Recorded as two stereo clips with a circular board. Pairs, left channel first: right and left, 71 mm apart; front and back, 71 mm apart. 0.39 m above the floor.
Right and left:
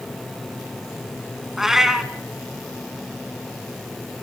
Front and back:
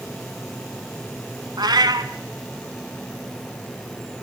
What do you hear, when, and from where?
1.6 s a cat meowing: 175° left, 1.5 m